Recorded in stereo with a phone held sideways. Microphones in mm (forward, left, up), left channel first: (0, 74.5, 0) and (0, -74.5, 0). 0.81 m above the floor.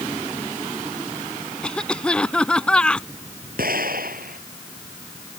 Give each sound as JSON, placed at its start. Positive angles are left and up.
{"t": 1.6, "sound": "a cough", "side_deg": 5}
{"t": 3.6, "sound": "an explosion", "side_deg": -75}